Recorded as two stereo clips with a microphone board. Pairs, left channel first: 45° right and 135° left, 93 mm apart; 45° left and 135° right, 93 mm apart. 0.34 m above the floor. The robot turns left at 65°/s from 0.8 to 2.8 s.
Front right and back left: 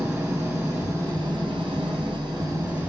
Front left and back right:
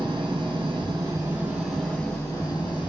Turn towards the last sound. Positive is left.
turn(degrees=70)